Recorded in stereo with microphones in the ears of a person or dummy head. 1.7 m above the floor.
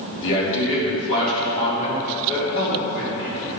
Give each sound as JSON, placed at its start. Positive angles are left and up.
{"t": 0.2, "sound": "a man speaking", "side_deg": 60, "distance_m": 2.0}